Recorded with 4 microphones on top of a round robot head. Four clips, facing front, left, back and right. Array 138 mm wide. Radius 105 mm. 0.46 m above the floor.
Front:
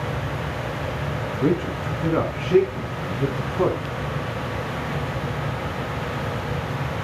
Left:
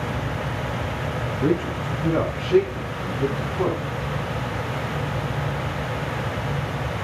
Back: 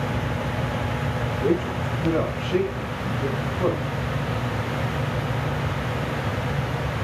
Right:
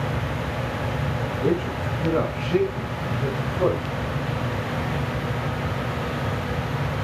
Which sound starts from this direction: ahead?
A man speaking, at 1.4 s.